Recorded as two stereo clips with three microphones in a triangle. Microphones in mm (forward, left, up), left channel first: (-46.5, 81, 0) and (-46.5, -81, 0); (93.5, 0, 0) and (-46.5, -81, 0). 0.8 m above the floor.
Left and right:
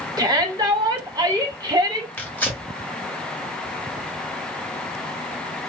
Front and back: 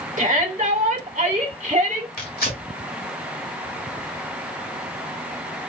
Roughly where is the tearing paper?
Ahead.